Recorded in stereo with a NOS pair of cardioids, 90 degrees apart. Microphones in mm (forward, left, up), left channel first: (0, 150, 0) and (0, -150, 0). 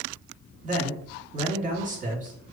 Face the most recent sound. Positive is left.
turn(degrees=-25)